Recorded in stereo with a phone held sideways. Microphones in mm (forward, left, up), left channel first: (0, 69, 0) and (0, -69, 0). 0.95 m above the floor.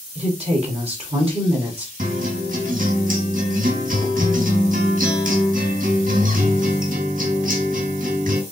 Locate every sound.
0.1 s a woman speaking: 45° right (ahead or behind), 1.8 m
2.0 s a guitar: 75° right (ahead or behind), 3 m